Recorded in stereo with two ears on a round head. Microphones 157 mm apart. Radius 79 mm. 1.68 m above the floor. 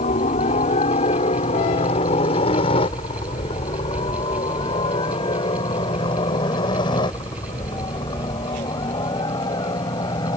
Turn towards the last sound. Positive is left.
turn(degrees=25)  # may be behind; listen again after turning